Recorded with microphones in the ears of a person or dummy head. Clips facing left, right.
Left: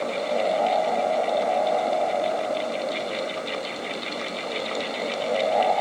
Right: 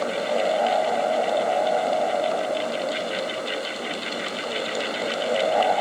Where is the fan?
10° right (ahead or behind).